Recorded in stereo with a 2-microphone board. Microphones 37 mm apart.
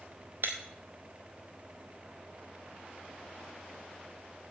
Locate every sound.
0.4 s breaking glass: 70° right (ahead or behind), 1.5 m